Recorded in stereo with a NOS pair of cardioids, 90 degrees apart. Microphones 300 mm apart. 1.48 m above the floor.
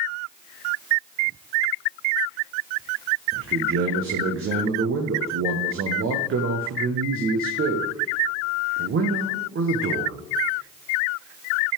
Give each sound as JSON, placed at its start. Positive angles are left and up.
{"t": 3.3, "sound": "a man speaking", "azimuth_deg": -45, "distance_m": 1.1}